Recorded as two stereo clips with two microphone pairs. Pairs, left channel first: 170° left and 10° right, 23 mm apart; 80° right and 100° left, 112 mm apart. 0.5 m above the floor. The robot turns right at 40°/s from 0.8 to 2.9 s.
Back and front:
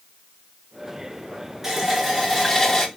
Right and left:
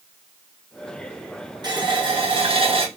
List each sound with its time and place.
1.6 s a running tap: 55° left, 0.9 m; by 2.9 s 105° left, 0.9 m